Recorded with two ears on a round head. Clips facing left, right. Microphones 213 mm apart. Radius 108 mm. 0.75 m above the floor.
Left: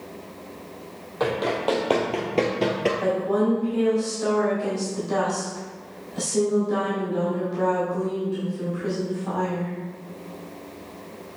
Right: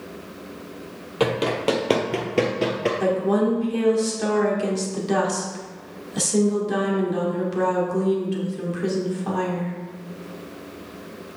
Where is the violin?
I don't hear a violin.